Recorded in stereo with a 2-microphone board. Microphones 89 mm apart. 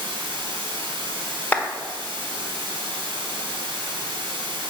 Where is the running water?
80° right, 1.8 m.